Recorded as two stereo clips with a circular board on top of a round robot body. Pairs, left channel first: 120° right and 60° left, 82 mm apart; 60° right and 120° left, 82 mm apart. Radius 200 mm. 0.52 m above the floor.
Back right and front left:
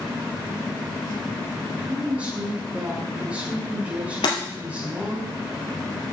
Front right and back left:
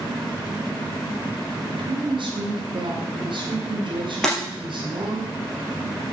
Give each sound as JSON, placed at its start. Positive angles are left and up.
{"t": 1.7, "sound": "a woman speaking", "azimuth_deg": 135, "distance_m": 2.5}
{"t": 4.2, "sound": "breaking glass", "azimuth_deg": -145, "distance_m": 3.0}